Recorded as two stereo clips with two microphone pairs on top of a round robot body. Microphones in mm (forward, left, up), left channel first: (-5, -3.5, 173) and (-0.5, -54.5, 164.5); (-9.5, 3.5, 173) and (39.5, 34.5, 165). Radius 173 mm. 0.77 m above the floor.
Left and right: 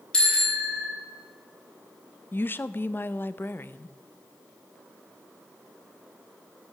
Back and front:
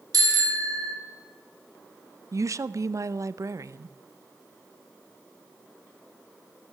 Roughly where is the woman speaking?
Ahead left.